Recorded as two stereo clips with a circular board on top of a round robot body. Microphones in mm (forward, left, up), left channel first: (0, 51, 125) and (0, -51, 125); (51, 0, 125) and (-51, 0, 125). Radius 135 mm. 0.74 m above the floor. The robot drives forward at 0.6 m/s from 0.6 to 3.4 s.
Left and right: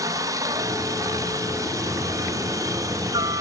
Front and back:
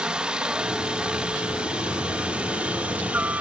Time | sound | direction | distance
0.0 | a helicopter | 105° right | ?